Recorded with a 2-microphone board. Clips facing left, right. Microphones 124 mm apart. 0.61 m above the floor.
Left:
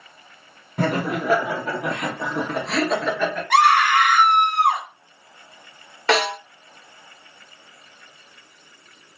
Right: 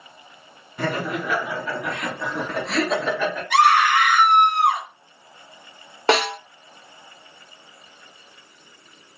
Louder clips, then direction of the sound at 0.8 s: Left 3 dB; 50° left (ahead or behind).